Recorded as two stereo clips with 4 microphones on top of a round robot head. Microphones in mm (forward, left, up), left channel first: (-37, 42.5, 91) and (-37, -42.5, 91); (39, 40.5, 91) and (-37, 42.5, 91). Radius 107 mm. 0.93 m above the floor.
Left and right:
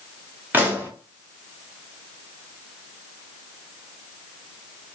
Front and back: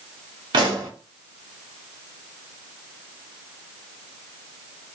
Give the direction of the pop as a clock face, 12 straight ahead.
5 o'clock.